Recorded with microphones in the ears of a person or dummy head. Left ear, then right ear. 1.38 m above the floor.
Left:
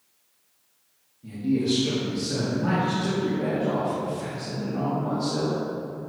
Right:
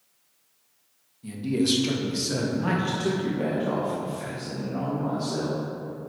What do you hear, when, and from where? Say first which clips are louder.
1.2 s a man speaking: even; 45° right (ahead or behind), 1.8 m; by 6.1 s 20° right (ahead or behind), 3.5 m